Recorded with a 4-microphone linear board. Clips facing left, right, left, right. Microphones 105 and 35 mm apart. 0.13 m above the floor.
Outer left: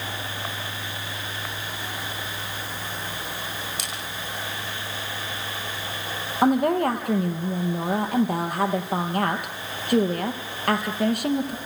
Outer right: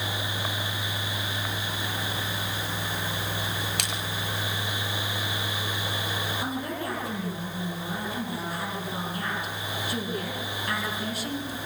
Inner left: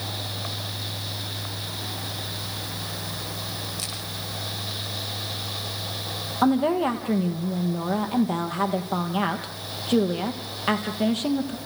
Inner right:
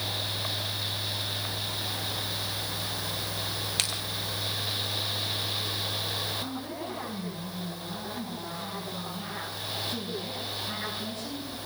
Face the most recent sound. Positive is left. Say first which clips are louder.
# outer left 12 dB, inner left 15 dB
turn(degrees=65)  # may be behind; listen again after turning